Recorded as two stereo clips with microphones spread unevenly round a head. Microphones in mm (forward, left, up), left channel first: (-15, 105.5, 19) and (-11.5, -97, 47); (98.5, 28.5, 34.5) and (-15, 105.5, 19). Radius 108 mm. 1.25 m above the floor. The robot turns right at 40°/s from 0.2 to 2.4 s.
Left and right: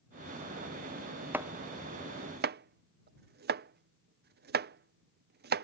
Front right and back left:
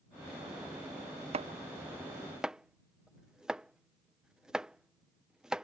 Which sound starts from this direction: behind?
Chopping, at 1.3 s.